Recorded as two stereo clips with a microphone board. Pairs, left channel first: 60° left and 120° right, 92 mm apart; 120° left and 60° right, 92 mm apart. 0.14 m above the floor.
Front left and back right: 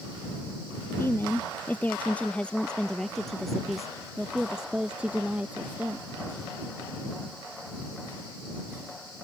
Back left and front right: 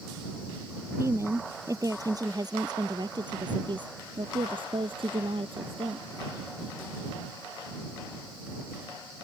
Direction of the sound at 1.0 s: Straight ahead.